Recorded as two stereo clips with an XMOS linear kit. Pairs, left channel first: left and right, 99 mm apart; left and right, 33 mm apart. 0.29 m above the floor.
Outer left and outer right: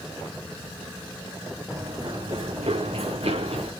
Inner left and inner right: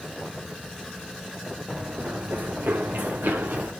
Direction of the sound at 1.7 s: 30° right (ahead or behind).